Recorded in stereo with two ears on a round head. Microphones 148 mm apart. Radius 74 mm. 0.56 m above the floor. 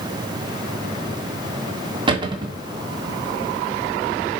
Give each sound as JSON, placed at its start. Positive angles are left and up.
{"t": 2.1, "sound": "a cupboard door", "side_deg": -30, "distance_m": 1.5}